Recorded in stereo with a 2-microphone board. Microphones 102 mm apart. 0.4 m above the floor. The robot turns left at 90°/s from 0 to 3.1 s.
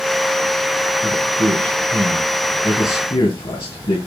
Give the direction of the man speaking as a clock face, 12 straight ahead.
2 o'clock.